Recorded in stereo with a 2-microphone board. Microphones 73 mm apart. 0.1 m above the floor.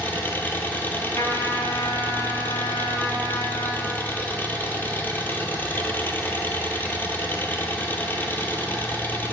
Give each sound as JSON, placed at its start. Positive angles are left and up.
{"t": 0.0, "sound": "an engine running", "side_deg": 25, "distance_m": 0.7}
{"t": 1.1, "sound": "a trumpet", "side_deg": 45, "distance_m": 1.0}